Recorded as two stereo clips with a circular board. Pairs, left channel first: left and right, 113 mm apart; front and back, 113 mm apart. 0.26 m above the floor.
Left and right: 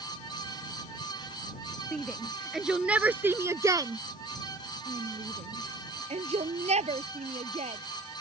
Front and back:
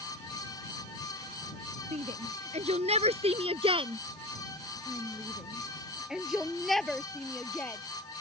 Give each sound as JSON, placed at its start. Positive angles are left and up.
{"t": 1.9, "sound": "a shout", "azimuth_deg": 175}